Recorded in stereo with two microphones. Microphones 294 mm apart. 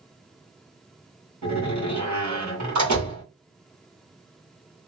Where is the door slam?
75° right (ahead or behind), 1.8 m.